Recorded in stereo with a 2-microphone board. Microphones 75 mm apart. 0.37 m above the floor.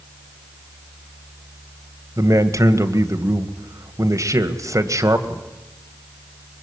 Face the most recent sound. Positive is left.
turn(degrees=-45)  # may be behind; listen again after turning